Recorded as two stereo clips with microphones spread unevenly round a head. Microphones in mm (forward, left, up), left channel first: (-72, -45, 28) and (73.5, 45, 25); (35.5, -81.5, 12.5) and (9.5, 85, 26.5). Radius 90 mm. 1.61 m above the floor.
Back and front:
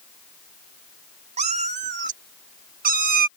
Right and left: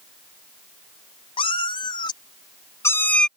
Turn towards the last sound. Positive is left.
turn(degrees=10)